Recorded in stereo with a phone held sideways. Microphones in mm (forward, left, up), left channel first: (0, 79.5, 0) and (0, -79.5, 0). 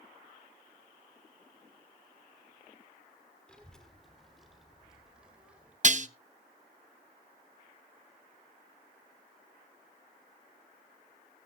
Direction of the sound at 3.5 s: 5° left (ahead or behind).